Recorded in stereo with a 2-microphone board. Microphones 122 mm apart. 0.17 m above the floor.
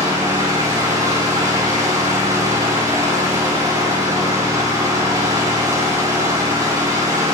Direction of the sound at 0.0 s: 25° right (ahead or behind).